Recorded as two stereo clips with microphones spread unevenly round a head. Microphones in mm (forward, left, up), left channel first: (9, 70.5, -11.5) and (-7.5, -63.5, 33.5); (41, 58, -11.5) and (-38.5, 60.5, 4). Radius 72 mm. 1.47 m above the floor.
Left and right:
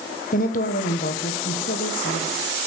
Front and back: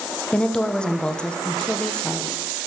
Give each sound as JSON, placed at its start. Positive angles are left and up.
{"t": 0.3, "sound": "a woman speaking", "azimuth_deg": 75, "distance_m": 1.3}